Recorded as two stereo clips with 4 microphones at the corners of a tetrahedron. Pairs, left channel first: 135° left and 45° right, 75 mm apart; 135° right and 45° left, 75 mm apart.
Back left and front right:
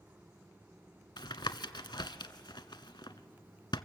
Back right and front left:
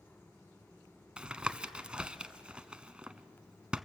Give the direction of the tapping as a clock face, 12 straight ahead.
8 o'clock.